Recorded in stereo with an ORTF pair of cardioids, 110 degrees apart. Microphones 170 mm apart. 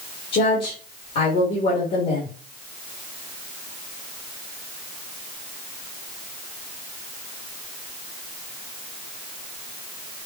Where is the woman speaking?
60° left, 2 m.